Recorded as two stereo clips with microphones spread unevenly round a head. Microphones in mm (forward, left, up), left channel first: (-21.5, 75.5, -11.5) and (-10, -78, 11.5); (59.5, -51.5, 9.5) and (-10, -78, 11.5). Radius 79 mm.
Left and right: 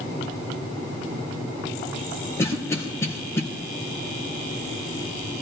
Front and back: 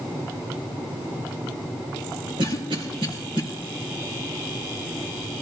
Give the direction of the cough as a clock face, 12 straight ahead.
6 o'clock.